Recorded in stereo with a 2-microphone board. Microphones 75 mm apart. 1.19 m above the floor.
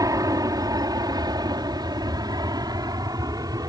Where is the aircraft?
55° right (ahead or behind).